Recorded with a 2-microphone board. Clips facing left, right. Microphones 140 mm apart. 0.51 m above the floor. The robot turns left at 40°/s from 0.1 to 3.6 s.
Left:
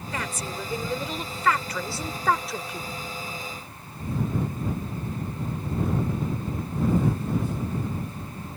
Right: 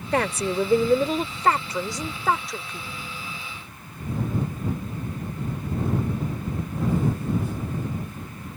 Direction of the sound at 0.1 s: 85° right.